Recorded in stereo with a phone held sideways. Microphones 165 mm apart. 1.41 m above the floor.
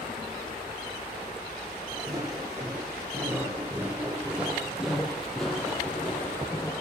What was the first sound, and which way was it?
Footsteps, 20° right (ahead or behind).